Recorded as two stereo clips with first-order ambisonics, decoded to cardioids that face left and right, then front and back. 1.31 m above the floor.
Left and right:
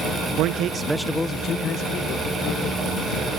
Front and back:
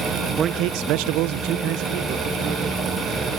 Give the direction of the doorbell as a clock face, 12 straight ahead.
I don't hear a doorbell.